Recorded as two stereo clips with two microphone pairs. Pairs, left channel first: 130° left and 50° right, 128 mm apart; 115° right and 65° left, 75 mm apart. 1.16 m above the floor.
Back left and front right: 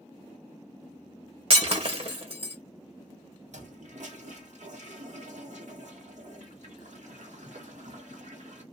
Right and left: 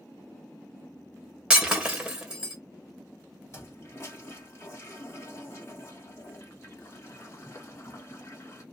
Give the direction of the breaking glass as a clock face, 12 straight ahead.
12 o'clock.